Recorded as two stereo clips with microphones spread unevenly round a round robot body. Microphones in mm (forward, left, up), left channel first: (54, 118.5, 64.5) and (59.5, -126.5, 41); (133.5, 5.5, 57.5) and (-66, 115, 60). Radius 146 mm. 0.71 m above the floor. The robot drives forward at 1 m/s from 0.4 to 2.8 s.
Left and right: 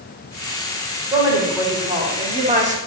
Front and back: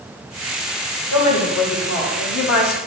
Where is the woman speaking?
15° right, 3 m; by 2.8 s 35° right, 1.4 m.